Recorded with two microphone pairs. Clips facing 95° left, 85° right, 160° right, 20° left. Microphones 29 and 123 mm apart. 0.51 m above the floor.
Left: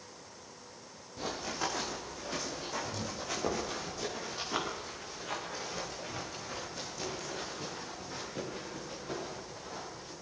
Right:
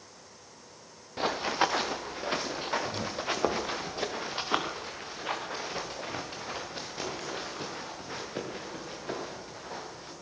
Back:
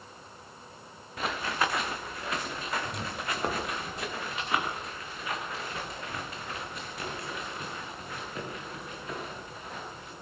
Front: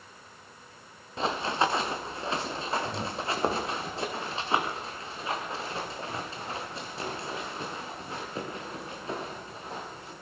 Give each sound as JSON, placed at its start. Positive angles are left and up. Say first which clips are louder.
{"t": 1.2, "sound": "running footsteps", "louder": "right 8 dB, front 3 dB", "azimuth_deg": -45, "distance_m": 2.5}